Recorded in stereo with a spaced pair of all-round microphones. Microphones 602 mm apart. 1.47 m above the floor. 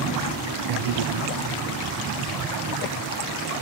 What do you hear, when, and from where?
0.7 s a man speaking: 65° right (ahead or behind); by 3.5 s 35° right (ahead or behind)